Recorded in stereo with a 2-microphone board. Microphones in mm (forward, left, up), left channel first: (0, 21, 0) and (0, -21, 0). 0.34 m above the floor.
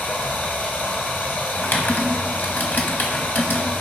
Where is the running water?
50° left (ahead or behind), 2 m.